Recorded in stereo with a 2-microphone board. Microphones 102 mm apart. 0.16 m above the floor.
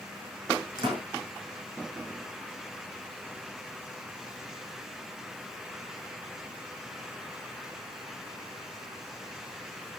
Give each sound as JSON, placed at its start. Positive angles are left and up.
{"t": 0.8, "sound": "a door slam", "side_deg": -45, "distance_m": 6.5}